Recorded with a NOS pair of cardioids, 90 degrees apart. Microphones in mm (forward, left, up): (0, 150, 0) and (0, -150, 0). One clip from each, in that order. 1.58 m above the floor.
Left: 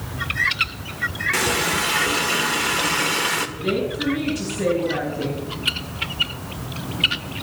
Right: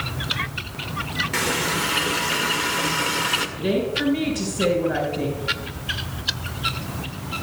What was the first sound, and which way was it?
A running tap, 15° left.